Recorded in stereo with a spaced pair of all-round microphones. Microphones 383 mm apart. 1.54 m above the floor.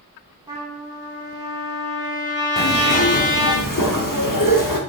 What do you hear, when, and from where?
0.5 s a trumpet: 10° right (ahead or behind), 1.8 m
2.6 s a zipper: 55° left (ahead or behind), 0.9 m